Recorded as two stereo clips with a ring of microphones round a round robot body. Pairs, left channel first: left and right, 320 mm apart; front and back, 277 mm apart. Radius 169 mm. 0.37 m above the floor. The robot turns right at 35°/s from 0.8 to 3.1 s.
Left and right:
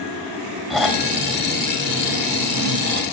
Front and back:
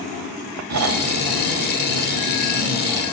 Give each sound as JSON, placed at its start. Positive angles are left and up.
{"t": 0.7, "sound": "snoring", "azimuth_deg": 180, "distance_m": 2.0}